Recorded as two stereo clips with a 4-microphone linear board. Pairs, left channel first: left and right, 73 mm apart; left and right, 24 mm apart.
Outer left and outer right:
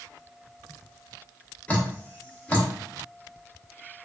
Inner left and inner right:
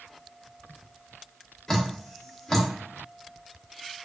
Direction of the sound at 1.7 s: 20° left (ahead or behind).